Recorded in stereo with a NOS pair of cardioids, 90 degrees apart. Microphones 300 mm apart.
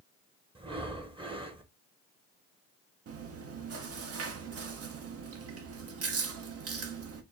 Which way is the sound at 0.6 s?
20° right.